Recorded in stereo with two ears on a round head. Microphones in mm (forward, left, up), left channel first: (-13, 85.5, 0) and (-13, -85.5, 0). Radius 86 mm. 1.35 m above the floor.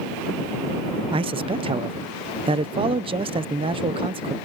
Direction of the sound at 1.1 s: 30° right (ahead or behind).